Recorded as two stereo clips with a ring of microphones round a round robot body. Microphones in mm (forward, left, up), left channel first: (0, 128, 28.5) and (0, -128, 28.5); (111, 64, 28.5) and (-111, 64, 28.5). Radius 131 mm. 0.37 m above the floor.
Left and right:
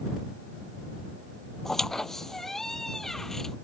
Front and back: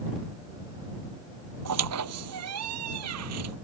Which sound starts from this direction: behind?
A squeak, at 1.6 s.